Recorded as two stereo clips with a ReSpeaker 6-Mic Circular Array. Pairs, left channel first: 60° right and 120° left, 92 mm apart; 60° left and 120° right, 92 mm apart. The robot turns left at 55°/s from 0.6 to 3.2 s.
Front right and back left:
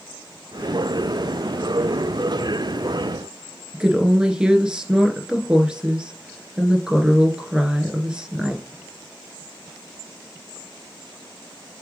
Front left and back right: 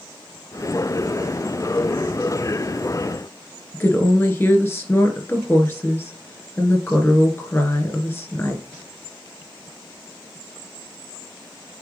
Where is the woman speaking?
55° left, 1.2 m.